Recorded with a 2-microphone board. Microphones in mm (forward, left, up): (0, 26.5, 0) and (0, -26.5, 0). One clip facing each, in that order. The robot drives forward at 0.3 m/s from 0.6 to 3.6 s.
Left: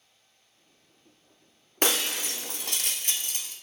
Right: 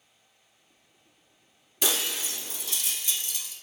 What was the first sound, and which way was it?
Breaking glass, 50° left (ahead or behind).